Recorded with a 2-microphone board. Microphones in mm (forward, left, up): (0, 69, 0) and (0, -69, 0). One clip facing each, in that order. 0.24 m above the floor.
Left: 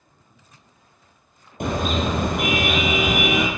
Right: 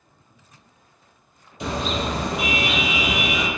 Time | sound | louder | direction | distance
1.6 | a car horn | left 3 dB | 55° left (ahead or behind) | 3 m